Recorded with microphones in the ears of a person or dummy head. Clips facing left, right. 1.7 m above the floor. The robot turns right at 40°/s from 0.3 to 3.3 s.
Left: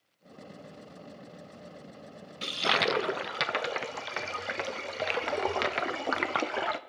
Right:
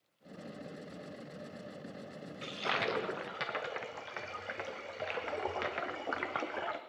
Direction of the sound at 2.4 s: 70° left.